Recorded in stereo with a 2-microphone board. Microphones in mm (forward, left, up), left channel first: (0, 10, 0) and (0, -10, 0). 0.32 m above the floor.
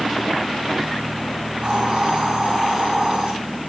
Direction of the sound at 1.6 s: 80° right.